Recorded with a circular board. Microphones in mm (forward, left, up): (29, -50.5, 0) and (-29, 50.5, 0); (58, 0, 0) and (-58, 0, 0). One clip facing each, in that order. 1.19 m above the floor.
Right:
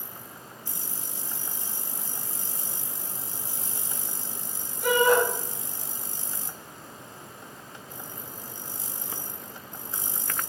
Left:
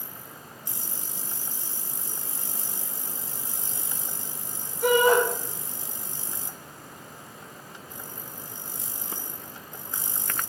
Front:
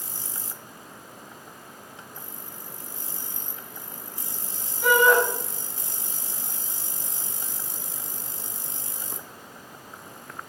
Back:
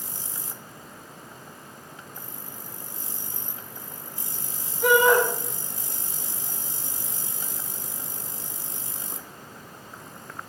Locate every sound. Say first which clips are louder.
4.8 s a shout: left 2 dB, back 1 dB; 85° left, 3 m